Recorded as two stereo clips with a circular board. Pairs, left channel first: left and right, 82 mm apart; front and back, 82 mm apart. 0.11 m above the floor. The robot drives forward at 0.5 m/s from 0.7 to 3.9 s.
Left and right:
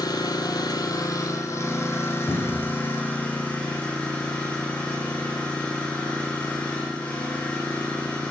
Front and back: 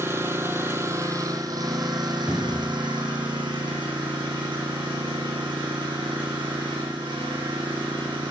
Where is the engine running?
120° left, 0.9 m; by 8.3 s 160° left, 2 m.